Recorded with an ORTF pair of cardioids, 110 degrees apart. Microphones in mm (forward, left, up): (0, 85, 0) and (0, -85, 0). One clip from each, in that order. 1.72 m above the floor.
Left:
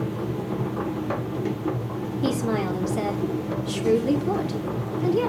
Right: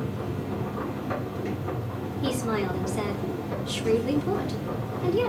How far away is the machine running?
About 1.8 m.